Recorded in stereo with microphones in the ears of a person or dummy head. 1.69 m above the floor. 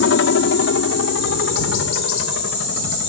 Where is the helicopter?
60° left (ahead or behind).